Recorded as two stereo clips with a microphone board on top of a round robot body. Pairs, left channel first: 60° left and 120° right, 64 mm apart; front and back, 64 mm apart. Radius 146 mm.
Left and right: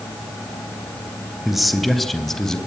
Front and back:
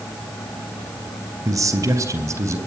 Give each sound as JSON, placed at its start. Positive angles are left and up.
{"t": 1.4, "sound": "a man speaking", "azimuth_deg": 155, "distance_m": 3.5}